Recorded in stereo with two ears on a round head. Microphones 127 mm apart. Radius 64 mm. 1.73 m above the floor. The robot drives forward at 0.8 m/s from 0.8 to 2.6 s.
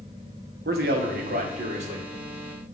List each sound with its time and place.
0.7 s a man speaking: 70° right (ahead or behind), 1.4 m; by 2.1 s 45° right (ahead or behind), 1.9 m